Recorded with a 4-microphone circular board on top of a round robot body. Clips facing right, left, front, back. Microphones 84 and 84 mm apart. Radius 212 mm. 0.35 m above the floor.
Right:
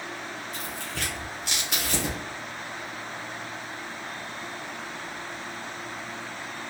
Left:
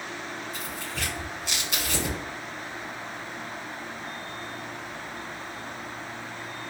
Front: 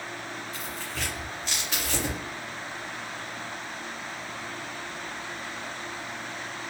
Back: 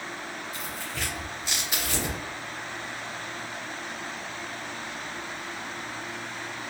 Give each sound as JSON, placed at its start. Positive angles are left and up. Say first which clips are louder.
{"t": 0.5, "sound": "tearing paper", "louder": "even, even", "azimuth_deg": -100, "distance_m": 2.0}